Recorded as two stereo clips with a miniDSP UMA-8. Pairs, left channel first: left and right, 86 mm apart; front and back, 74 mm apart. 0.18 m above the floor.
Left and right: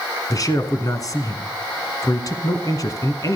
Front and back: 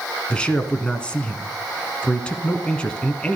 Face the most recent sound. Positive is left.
turn(degrees=70)